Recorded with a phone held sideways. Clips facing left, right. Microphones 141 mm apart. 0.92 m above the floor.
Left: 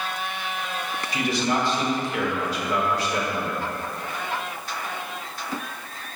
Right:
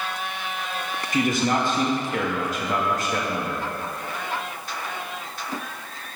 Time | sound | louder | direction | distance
1.1 | a man speaking | right 3 dB | 50° right (ahead or behind) | 1.5 m